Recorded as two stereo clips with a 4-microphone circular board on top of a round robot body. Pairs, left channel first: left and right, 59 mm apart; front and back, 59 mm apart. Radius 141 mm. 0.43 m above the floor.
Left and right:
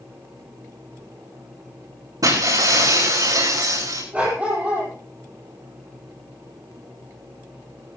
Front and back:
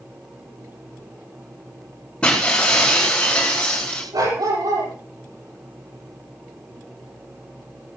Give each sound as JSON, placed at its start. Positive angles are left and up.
{"t": 2.2, "sound": "breaking glass", "azimuth_deg": -75, "distance_m": 9.0}
{"t": 4.1, "sound": "a dog barking", "azimuth_deg": -160, "distance_m": 10.0}